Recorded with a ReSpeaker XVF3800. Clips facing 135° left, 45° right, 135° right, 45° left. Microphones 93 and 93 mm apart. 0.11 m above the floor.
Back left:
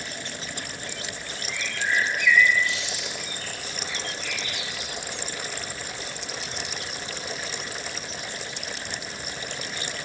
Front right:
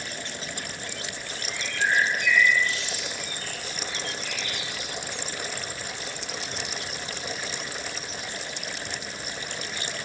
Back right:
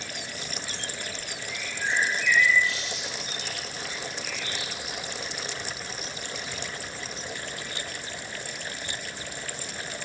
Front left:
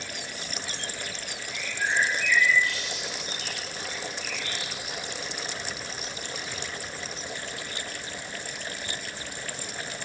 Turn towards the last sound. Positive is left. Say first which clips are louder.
# front right 2 dB, front left 1 dB
turn(degrees=10)